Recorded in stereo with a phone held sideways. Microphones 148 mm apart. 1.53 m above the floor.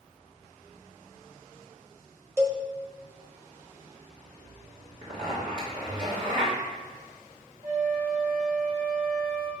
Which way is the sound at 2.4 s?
15° right (ahead or behind).